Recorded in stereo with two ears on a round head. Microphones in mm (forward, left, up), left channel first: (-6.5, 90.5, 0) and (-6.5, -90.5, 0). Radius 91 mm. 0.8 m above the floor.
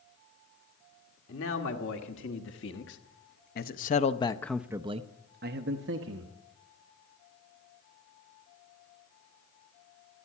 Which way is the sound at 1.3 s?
65° left (ahead or behind).